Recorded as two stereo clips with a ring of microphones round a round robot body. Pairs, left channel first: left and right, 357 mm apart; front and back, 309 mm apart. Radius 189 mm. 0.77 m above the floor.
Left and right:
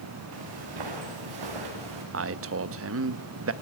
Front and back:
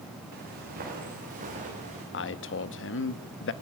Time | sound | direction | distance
0.3 | footsteps | 115° right | 5 m
2.1 | a man speaking | 45° right | 0.9 m